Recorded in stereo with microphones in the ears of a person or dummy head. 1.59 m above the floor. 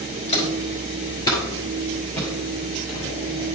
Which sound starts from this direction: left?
Footsteps, at 0.3 s.